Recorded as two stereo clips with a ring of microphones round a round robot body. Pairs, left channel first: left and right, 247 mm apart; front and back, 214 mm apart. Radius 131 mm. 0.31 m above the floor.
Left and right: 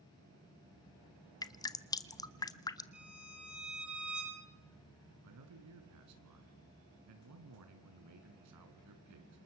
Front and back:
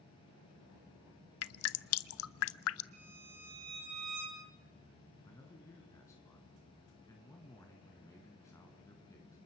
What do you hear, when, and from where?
1.4 s dripping: 15° left, 0.7 m
2.9 s a violin: 175° right, 6 m
5.2 s a man speaking: 80° right, 4 m